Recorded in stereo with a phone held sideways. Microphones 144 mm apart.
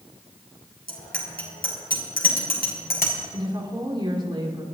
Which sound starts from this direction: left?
A bicycle bell, at 0.9 s.